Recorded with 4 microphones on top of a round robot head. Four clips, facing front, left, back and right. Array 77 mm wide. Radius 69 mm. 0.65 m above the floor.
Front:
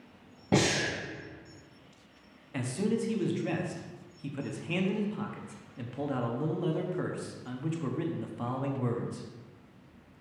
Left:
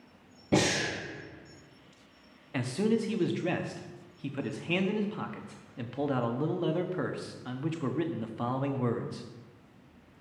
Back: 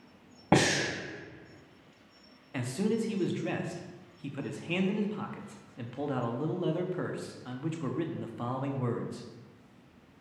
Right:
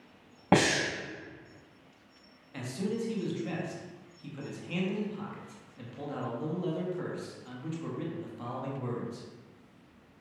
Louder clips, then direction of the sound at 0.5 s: Right 2 dB, back 2 dB; 125° right.